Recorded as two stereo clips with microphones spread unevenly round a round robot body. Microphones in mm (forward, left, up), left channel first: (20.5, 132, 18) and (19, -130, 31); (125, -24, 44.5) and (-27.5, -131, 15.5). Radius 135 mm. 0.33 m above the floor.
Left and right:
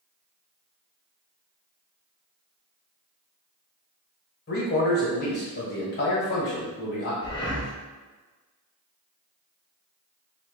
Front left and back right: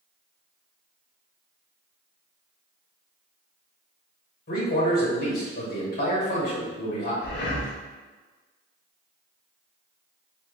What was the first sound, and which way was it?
A man speaking, 65° left.